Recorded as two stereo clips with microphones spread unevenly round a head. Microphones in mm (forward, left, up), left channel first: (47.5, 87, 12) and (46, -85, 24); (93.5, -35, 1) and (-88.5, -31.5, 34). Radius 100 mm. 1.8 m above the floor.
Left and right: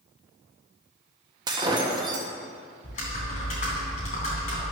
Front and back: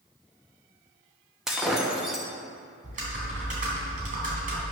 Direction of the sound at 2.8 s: 145° left.